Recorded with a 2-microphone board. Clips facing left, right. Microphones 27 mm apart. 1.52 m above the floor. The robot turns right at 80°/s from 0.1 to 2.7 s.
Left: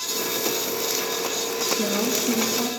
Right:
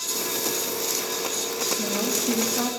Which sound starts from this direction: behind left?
A woman speaking, at 1.7 s.